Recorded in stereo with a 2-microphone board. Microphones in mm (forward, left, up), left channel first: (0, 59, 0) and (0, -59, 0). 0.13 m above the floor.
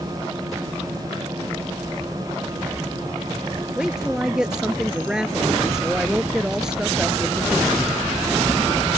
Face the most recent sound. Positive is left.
turn(degrees=-5)  # may be behind; listen again after turning